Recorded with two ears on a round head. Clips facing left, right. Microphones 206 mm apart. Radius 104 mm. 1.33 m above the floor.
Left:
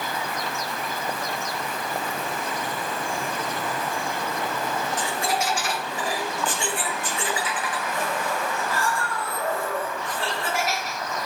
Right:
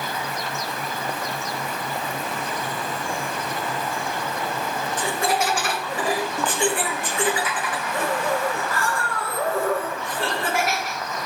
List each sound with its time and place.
5.0 s laughter: 45° right (ahead or behind), 0.8 m